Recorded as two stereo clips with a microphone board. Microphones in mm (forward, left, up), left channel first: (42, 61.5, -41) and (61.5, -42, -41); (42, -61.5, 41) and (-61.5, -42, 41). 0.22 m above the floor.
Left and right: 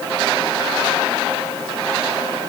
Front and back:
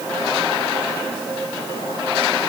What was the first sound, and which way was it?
Only background noise.